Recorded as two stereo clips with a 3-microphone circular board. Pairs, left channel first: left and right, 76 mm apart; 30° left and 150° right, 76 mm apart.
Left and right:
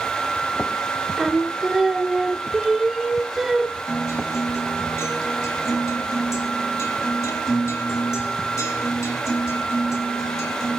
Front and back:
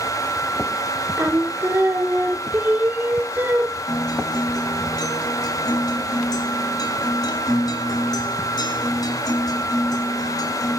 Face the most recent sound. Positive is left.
turn(degrees=45)